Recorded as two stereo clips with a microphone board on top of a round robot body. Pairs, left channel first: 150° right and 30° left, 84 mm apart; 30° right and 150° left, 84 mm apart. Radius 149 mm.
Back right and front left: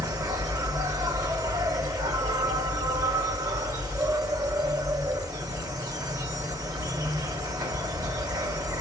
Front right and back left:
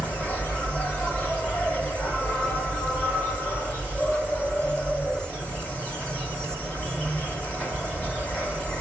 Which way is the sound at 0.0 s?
35° left.